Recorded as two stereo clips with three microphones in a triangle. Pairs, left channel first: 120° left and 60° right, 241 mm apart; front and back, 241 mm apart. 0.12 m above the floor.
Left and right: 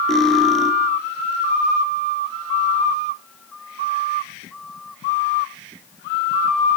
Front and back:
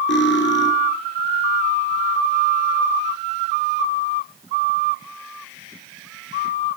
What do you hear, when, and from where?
0.1 s cutlery clinking: 30° left, 2 m